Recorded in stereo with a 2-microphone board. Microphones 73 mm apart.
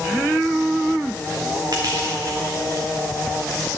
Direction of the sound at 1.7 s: 55° right (ahead or behind).